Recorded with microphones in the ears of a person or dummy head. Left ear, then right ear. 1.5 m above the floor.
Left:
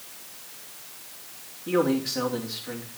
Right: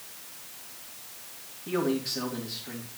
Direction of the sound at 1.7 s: Centre (ahead or behind).